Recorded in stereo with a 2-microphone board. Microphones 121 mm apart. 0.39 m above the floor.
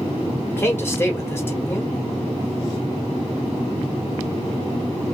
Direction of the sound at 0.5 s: 20° left (ahead or behind).